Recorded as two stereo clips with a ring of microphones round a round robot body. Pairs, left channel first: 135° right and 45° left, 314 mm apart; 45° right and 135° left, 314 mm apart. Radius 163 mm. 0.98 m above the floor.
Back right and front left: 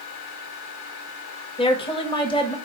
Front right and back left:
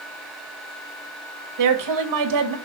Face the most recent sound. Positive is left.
turn(degrees=150)